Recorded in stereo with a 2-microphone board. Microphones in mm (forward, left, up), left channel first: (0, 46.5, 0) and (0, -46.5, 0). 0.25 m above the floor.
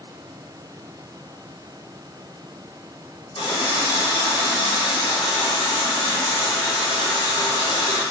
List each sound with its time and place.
3.4 s a running tap: 55° left (ahead or behind), 1.5 m